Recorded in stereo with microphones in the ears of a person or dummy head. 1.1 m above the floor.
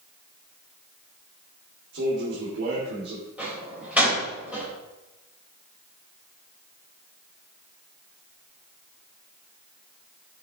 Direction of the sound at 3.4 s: 10° right (ahead or behind).